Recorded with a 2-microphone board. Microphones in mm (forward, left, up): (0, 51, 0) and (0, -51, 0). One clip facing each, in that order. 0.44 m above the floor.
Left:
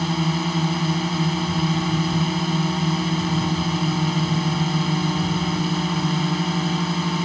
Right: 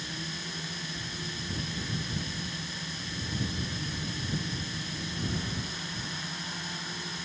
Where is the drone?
65° left (ahead or behind).